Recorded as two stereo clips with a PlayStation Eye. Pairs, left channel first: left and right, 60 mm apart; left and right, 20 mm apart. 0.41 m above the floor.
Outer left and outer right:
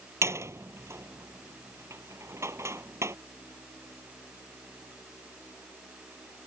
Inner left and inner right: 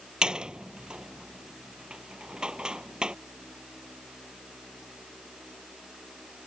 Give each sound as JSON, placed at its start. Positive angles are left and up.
{"t": 0.2, "sound": "a door slam", "side_deg": -45}